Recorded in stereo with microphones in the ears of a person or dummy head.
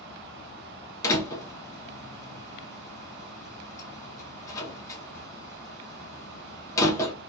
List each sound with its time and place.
1.0 s a door slam: 25° left (ahead or behind), 0.7 m